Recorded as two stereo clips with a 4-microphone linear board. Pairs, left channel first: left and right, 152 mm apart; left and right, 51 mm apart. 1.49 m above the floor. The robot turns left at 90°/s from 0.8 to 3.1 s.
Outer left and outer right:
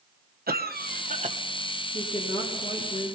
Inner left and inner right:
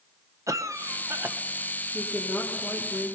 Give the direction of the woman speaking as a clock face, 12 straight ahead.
7 o'clock.